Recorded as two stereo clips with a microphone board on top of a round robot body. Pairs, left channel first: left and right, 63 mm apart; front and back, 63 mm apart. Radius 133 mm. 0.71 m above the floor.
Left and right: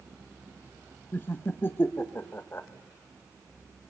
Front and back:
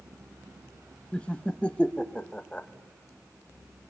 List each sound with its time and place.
1.1 s laughter: 65° left, 0.9 m